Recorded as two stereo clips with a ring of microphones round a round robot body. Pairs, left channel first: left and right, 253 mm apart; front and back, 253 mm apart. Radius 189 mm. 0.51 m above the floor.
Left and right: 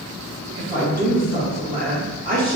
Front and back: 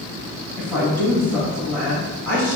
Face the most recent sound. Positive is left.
turn(degrees=-80)